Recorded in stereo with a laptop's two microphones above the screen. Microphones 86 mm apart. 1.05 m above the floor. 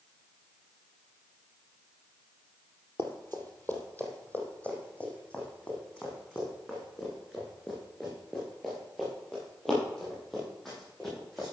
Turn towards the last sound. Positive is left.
turn(degrees=5)  # may be behind; listen again after turning